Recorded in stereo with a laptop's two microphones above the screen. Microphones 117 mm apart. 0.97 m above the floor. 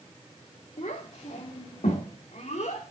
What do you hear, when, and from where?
0.8 s a child speaking: 65° left (ahead or behind), 1.7 m; by 2.9 s 80° left, 2 m